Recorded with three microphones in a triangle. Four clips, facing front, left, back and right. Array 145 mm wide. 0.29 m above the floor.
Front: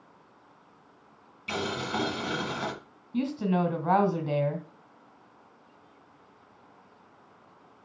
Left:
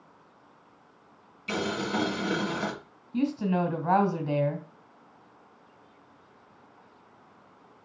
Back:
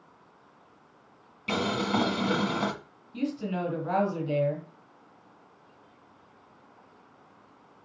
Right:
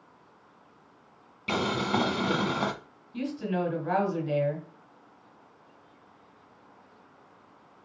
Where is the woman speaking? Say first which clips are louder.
Left 4 dB, front 3 dB; 30° left, 2.5 m.